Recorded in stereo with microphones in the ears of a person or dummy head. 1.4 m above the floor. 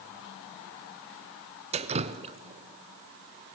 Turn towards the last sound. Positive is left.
turn(degrees=-30)  # may be behind; listen again after turning